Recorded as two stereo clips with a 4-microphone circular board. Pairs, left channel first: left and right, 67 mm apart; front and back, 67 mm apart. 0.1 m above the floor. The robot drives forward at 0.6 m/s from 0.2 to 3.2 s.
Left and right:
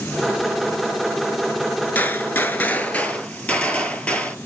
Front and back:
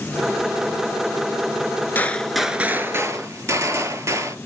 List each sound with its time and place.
1.9 s a gunshot: 45° left, 0.5 m; by 4.3 s 155° left, 0.7 m